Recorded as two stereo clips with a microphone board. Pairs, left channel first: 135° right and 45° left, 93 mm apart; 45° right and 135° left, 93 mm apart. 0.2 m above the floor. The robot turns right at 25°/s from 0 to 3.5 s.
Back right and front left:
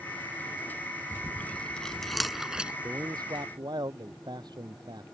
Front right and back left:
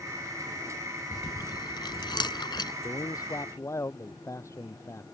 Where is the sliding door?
No sliding door in this recording.